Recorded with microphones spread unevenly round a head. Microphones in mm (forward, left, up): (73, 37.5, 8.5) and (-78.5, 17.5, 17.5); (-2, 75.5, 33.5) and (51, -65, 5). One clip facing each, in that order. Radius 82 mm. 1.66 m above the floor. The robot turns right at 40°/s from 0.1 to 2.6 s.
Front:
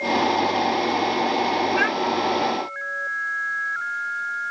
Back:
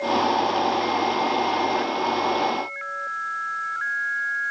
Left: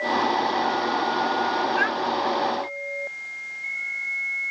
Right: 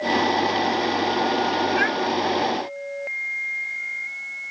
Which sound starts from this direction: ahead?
A child speaking, at 1.8 s.